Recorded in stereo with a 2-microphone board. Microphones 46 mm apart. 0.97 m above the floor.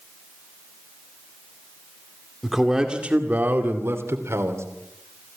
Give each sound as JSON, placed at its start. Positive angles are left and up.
{"t": 2.4, "sound": "a man speaking", "side_deg": 0, "distance_m": 2.0}